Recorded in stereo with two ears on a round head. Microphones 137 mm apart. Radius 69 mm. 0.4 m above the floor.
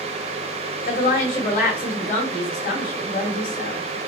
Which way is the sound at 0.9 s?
50° left (ahead or behind).